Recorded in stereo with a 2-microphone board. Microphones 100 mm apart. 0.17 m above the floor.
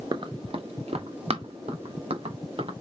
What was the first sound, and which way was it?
Running footsteps, 50° right (ahead or behind).